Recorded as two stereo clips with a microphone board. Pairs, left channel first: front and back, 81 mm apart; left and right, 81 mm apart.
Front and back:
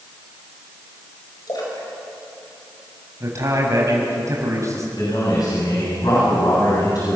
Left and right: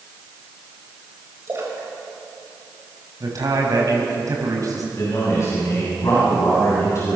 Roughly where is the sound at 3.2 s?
Behind right.